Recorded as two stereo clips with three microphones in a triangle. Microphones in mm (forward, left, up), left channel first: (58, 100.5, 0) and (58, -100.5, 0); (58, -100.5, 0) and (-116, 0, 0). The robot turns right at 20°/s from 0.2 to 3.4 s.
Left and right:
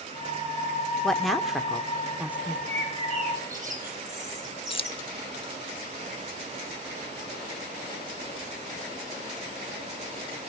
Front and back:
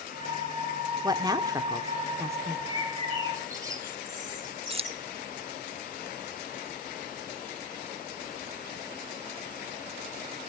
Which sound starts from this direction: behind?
A woman speaking, at 1.0 s.